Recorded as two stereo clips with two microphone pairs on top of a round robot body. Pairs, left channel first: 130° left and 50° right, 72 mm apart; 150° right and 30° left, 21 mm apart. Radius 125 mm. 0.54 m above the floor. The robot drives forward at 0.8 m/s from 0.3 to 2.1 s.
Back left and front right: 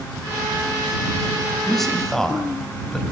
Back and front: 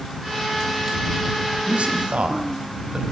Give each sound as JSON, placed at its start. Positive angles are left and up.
{"t": 1.7, "sound": "a man speaking", "azimuth_deg": 40, "distance_m": 5.5}